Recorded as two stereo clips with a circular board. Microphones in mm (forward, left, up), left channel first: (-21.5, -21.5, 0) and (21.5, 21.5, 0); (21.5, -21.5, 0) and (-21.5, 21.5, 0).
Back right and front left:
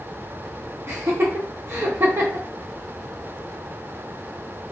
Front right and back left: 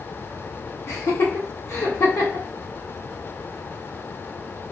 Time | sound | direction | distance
0.9 | laughter | 5° right | 0.8 m